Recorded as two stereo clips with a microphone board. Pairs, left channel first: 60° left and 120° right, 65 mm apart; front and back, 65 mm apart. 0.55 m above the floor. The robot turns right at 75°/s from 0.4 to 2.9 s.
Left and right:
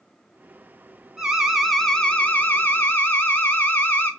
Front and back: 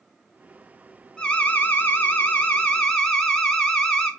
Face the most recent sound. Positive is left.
turn(degrees=70)